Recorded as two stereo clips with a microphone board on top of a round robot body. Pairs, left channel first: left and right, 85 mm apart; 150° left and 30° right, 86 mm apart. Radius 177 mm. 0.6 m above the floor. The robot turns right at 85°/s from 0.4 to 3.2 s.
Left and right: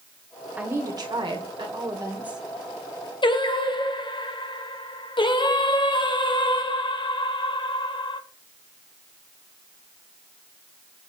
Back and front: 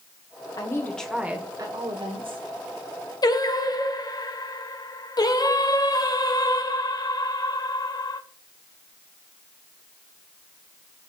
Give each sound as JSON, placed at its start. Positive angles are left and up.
{"t": 0.6, "sound": "a woman speaking", "azimuth_deg": -165, "distance_m": 2.0}
{"t": 3.2, "sound": "singing", "azimuth_deg": 110, "distance_m": 1.2}